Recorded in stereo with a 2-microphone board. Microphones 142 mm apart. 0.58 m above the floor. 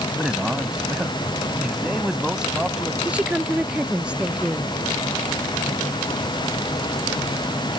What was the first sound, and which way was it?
A man speaking, 5° right (ahead or behind).